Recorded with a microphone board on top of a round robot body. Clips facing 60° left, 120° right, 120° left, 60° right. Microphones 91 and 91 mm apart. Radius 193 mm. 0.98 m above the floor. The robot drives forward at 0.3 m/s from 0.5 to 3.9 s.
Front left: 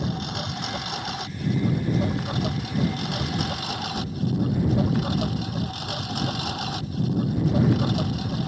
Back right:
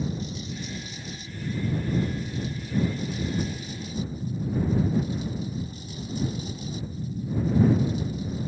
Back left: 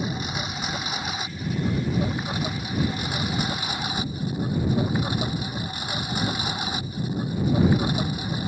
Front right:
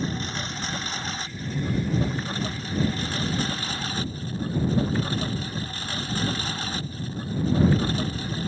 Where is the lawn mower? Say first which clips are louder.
Front left 3 dB, back left 1 dB; 40° left; by 8.5 s 45° left.